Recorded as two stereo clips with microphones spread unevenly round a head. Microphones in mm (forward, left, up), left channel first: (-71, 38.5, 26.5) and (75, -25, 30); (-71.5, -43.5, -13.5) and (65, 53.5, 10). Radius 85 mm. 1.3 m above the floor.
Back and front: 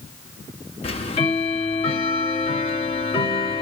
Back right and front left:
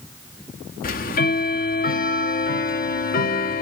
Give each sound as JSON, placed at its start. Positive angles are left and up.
{"t": 0.8, "sound": "ticking", "azimuth_deg": -160, "distance_m": 0.8}